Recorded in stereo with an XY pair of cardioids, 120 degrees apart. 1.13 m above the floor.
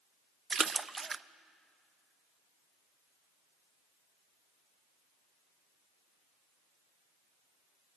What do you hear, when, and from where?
0.5 s a splash: 25° right, 0.5 m